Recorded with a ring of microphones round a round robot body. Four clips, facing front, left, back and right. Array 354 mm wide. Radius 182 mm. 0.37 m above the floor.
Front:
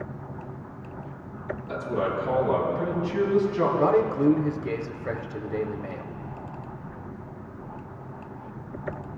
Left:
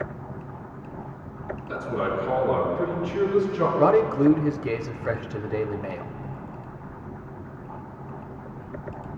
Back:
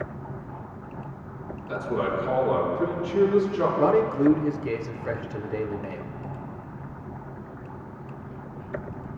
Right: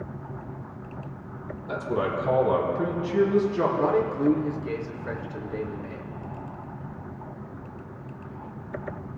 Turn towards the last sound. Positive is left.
turn(degrees=90)